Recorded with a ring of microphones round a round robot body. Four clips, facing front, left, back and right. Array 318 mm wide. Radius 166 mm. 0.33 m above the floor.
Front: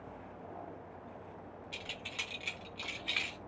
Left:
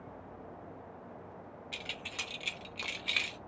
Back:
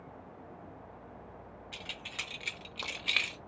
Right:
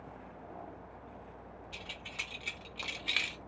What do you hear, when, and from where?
1.7 s keys jangling: 90° left, 1.6 m; by 3.4 s 160° right, 1.1 m